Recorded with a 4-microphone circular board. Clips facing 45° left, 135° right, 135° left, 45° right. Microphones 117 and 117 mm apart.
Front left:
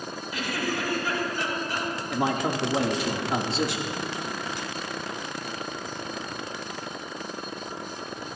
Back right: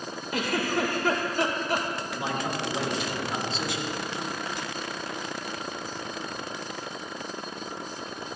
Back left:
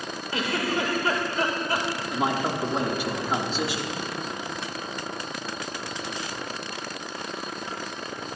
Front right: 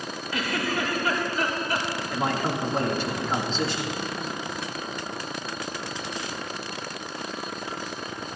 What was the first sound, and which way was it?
A giggle, 165° right.